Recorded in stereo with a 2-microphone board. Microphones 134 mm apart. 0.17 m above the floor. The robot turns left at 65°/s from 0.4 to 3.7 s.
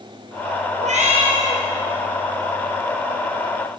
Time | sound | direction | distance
0.8 | a cat meowing | 105° right | 2 m